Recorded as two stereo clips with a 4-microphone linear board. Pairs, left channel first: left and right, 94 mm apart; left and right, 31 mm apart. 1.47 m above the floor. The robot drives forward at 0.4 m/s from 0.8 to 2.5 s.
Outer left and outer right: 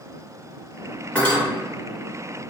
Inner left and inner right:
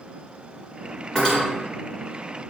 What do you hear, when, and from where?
1.1 s cutlery clinking: 20° left (ahead or behind), 1.4 m